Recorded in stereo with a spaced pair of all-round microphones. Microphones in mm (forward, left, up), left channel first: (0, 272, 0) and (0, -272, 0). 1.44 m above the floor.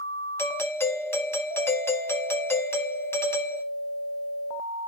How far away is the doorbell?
About 1.3 m.